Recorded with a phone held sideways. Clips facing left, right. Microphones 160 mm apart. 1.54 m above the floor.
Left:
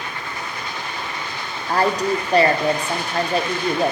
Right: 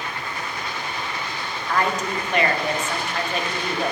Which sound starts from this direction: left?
A woman speaking, at 1.7 s.